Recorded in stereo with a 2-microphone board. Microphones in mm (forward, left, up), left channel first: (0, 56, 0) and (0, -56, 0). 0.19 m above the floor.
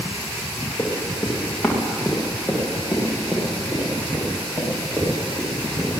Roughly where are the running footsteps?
Centre.